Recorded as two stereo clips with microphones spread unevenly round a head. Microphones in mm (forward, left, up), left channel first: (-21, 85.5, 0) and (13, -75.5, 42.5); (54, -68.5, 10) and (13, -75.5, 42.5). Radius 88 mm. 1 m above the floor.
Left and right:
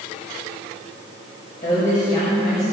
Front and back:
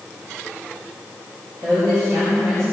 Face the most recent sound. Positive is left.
turn(degrees=145)